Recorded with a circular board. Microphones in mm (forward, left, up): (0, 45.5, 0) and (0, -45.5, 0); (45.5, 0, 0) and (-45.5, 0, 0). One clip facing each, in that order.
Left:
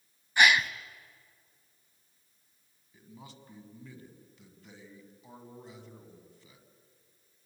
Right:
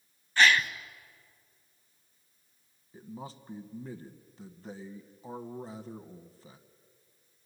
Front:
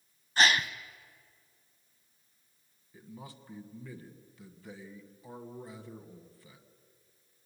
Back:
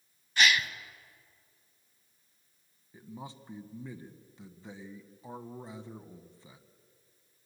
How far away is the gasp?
About 0.9 m.